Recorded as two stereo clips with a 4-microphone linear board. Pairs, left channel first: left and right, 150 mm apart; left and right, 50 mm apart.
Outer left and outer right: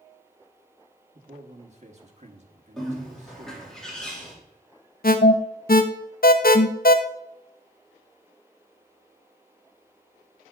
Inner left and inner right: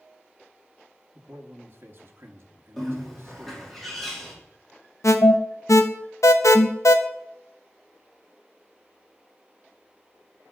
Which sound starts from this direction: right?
A man speaking, at 1.1 s.